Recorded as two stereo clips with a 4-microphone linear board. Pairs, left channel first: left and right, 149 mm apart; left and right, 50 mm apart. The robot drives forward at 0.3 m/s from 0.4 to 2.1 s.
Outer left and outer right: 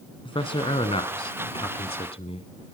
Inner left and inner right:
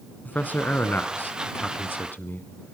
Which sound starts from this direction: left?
A man speaking, at 0.2 s.